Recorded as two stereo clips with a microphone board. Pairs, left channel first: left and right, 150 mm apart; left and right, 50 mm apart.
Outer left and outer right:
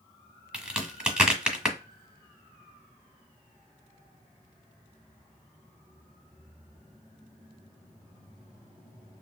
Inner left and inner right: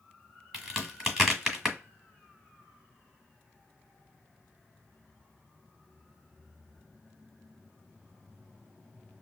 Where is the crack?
5° right (ahead or behind), 1.5 m.